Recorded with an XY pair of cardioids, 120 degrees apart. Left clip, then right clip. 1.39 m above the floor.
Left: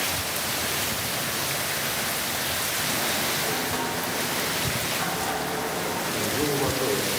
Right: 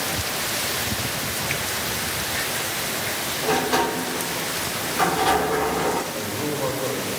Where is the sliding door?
60° right, 0.9 m.